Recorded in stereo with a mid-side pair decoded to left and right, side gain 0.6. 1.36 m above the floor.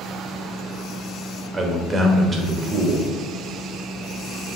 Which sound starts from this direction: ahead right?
A man speaking, at 1.5 s.